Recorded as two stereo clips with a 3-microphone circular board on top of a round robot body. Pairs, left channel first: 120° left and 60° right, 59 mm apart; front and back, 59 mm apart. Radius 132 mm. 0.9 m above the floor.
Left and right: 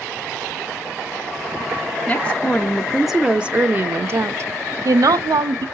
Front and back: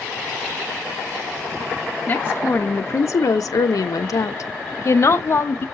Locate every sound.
2.1 s a woman speaking: 55° left, 1.5 m; by 5.7 s 55° right, 1.7 m